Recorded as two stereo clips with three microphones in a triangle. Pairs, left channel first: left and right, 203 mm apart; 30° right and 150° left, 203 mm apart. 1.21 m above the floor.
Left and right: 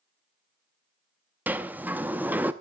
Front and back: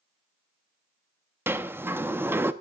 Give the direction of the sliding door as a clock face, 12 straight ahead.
5 o'clock.